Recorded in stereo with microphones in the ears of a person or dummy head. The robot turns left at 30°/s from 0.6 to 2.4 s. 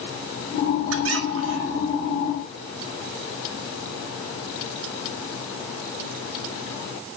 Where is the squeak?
100° right, 1.1 m; by 2.0 s 130° right, 1.1 m.